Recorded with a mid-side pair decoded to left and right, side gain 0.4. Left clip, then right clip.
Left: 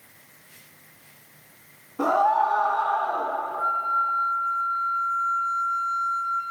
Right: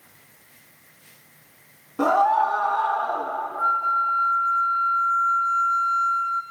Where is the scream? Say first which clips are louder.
Right 2 dB; 60° right, 1.3 m.